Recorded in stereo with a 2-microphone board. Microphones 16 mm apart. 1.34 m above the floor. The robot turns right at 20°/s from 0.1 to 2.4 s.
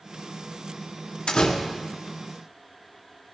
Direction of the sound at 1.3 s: 75° left (ahead or behind).